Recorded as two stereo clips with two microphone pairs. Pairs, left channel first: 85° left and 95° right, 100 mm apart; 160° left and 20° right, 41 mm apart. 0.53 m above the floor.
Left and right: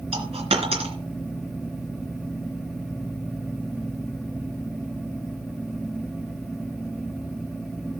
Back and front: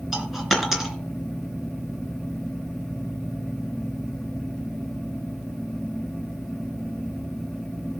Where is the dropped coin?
100° right, 2.5 m.